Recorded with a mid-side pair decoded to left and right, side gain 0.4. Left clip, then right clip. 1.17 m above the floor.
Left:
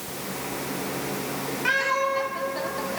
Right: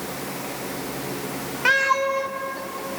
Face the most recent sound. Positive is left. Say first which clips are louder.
# right 4 dB
turn(degrees=-55)